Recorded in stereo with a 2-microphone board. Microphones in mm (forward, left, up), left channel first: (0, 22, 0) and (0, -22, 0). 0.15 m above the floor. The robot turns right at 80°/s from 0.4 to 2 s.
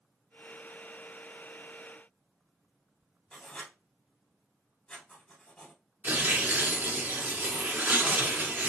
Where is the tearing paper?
40° right (ahead or behind), 1.6 m.